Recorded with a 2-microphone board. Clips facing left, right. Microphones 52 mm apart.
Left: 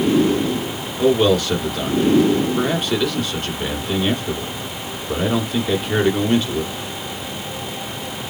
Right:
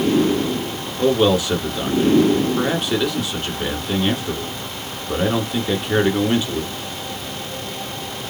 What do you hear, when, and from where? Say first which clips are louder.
1.0 s a man speaking: left 1 dB; 10° right (ahead or behind), 1.3 m